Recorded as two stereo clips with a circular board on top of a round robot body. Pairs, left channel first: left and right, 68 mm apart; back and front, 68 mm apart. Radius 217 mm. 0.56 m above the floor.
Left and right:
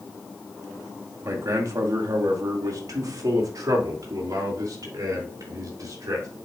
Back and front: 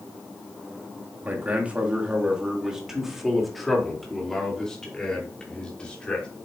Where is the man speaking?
60° right, 2 m; by 6.3 s 110° right, 3.5 m.